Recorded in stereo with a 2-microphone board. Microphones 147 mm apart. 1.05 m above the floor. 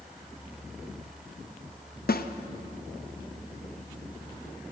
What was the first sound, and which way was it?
A snare drum, 75° left (ahead or behind).